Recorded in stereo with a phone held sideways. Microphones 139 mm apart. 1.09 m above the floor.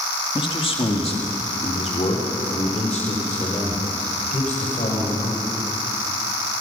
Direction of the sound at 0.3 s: 40° left (ahead or behind).